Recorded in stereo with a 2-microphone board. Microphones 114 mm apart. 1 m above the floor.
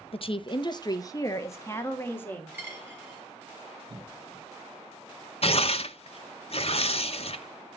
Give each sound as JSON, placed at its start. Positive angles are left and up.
{"t": 0.1, "sound": "a woman speaking", "side_deg": 55, "distance_m": 0.7}
{"t": 2.5, "sound": "a dropped coin", "side_deg": -15, "distance_m": 4.5}
{"t": 3.9, "sound": "a cough", "side_deg": -45, "distance_m": 3.5}
{"t": 5.4, "sound": "tearing paper", "side_deg": 55, "distance_m": 0.7}